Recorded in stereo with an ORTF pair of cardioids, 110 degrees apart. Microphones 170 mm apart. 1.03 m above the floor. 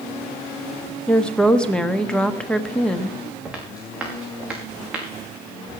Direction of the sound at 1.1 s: 5° left.